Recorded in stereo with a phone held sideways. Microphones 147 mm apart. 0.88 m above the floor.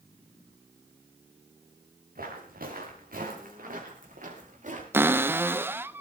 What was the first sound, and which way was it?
Footsteps, 80° right.